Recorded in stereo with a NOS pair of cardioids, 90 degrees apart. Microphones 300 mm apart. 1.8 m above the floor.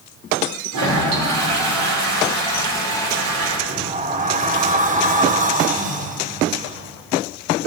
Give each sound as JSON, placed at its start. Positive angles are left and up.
{"t": 0.7, "sound": "a toilet flushing", "azimuth_deg": -70, "distance_m": 3.0}
{"t": 3.7, "sound": "a sliding door", "azimuth_deg": -25, "distance_m": 1.0}